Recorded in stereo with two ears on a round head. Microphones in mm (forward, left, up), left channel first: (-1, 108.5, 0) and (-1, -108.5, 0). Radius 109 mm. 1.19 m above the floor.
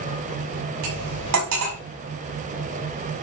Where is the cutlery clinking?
80° right, 5 m.